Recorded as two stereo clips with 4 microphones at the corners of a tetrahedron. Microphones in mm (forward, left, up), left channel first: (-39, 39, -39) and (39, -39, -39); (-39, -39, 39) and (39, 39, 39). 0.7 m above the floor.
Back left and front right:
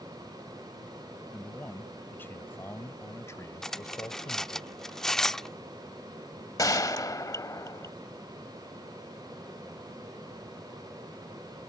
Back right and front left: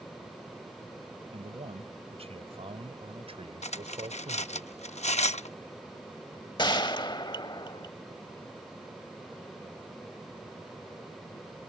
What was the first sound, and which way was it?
A man speaking, 60° left.